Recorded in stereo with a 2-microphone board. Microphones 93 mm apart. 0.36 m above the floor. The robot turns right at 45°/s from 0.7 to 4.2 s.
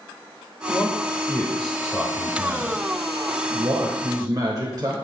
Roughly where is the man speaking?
Behind left.